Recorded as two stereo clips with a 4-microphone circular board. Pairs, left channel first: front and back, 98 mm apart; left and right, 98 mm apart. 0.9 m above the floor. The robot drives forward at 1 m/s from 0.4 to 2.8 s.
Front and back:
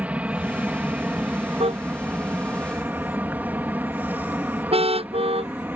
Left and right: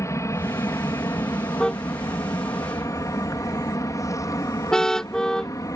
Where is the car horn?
175° left.